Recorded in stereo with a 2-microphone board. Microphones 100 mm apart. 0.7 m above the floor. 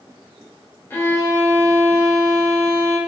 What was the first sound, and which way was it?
A violin, 20° left (ahead or behind).